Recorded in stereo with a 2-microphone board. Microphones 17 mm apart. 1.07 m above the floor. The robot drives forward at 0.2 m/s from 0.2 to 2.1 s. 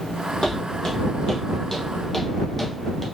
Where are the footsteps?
45° left (ahead or behind), 1.7 m; by 3.0 s 10° left (ahead or behind), 1.0 m.